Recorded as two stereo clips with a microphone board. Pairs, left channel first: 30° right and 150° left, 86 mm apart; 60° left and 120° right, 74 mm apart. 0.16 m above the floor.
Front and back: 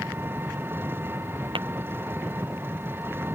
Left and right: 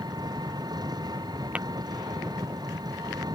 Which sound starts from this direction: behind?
Tapping, at 1.6 s.